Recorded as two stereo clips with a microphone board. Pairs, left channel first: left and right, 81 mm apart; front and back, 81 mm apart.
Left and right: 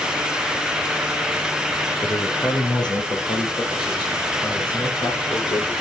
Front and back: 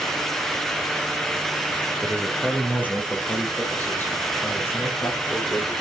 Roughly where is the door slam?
No door slam in this recording.